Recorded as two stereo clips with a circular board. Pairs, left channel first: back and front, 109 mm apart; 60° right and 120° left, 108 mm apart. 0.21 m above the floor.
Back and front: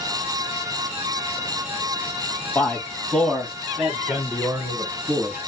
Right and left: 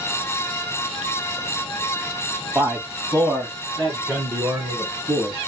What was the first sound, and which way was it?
A man speaking, 155° left.